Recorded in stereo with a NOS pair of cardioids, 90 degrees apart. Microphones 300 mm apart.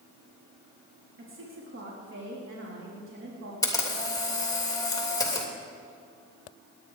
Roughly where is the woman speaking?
Ahead right.